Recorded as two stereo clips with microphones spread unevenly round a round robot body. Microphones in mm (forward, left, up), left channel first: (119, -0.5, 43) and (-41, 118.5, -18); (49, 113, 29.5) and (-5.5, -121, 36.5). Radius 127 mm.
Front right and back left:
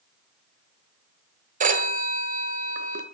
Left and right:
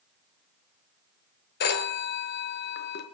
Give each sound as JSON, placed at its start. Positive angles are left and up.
{"t": 1.6, "sound": "a phone ringing", "azimuth_deg": 120, "distance_m": 1.3}